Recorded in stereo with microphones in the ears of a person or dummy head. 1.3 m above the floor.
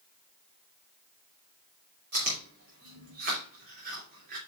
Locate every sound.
2.1 s chewing: 50° right (ahead or behind), 2.5 m